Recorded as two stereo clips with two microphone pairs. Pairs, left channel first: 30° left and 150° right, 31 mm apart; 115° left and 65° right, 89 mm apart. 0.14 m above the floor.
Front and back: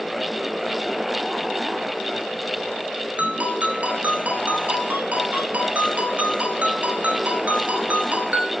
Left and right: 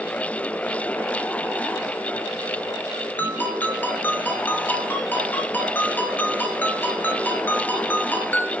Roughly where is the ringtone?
Behind.